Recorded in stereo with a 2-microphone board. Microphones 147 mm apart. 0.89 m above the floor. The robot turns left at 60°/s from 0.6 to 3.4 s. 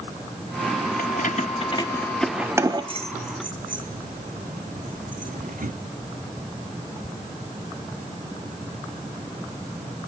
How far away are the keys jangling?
About 1.0 m.